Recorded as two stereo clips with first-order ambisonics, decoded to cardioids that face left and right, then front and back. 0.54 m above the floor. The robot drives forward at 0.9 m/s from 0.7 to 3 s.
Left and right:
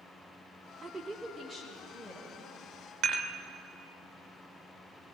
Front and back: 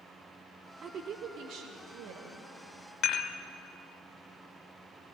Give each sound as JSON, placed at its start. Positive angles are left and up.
{"t": 0.8, "sound": "a woman speaking", "azimuth_deg": -145, "distance_m": 0.7}
{"t": 3.0, "sound": "dishes clattering", "azimuth_deg": -55, "distance_m": 1.0}